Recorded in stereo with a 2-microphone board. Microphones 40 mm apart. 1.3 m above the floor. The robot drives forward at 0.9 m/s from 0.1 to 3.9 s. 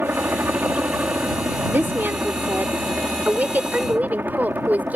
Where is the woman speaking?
70° right (ahead or behind); by 5.0 s 45° right (ahead or behind).